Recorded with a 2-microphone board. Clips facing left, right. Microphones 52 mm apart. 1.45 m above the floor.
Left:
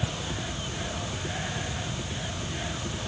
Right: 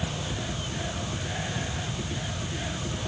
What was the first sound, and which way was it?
Only background noise.